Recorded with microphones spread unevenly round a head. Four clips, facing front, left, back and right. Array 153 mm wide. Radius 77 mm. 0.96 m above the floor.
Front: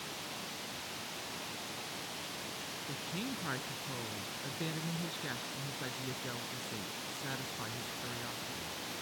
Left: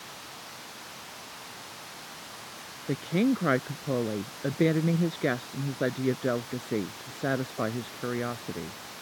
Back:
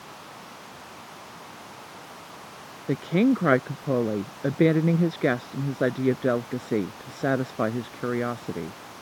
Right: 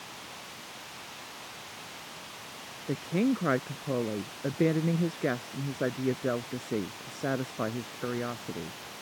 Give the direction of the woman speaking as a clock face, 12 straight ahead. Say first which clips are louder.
Left 2 dB, back 21 dB; 6 o'clock.